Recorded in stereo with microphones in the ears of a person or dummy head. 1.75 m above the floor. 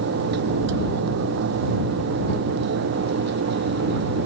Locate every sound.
0.0 s a fan: 80° right